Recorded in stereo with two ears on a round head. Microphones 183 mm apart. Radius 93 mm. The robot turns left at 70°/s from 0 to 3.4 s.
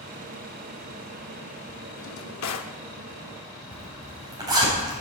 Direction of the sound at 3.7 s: 20° right (ahead or behind).